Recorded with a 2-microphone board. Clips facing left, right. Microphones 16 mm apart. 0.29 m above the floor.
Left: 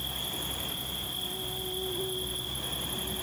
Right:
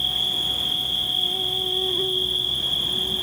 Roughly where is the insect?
Right.